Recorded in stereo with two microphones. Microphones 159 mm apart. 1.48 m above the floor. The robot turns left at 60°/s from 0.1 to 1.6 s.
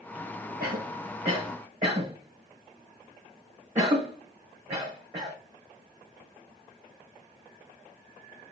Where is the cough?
70° right (ahead or behind), 1.0 m; by 5.3 s 50° right (ahead or behind), 1.0 m.